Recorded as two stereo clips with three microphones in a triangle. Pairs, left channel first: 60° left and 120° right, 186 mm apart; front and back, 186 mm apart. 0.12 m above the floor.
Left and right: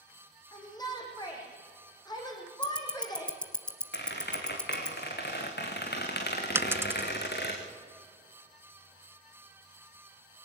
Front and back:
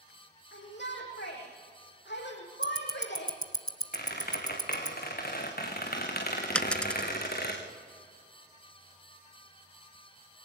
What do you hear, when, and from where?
0.5 s a shout: 5° right, 6.5 m
2.6 s ticking: 15° right, 1.5 m
3.9 s a squeak: 35° left, 4 m
6.5 s a dropped coin: 70° right, 0.6 m